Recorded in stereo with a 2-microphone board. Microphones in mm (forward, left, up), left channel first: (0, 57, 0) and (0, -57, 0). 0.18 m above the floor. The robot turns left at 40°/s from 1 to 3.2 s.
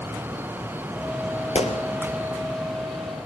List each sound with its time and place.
1.6 s a gunshot: 75° left (ahead or behind), 3 m; by 1.8 s 70° left (ahead or behind), 3 m